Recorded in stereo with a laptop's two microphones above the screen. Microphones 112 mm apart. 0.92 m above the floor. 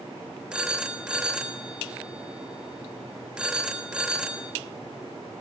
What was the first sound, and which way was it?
A phone ringing, 10° right (ahead or behind).